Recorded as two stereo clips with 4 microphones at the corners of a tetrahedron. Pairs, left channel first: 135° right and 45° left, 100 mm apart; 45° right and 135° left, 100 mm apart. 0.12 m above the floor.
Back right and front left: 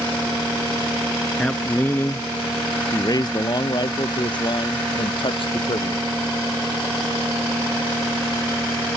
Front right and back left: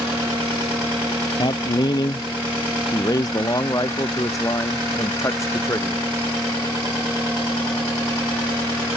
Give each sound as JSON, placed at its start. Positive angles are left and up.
{"t": 1.4, "sound": "a man speaking", "azimuth_deg": -60}